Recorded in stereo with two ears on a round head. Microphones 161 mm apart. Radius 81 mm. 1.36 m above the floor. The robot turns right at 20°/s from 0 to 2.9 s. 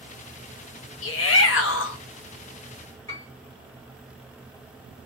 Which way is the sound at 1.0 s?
75° left (ahead or behind).